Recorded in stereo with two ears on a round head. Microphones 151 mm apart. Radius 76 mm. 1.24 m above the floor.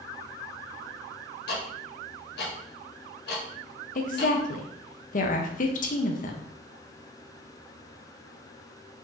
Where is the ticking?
70° left (ahead or behind), 1.3 m.